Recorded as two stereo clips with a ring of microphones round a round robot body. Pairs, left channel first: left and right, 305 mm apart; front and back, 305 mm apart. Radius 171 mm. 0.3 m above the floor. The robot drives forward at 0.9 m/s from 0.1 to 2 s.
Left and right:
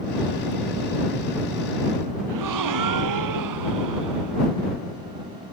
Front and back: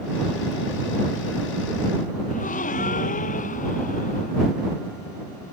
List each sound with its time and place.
2.3 s a gasp: 70° right